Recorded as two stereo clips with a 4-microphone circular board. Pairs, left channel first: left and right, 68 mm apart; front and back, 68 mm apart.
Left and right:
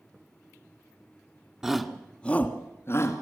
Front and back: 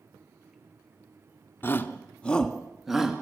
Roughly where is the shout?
Ahead.